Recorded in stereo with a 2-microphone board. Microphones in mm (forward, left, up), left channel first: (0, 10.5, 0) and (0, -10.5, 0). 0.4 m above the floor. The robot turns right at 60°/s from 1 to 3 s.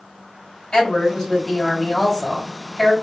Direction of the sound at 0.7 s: 45° left.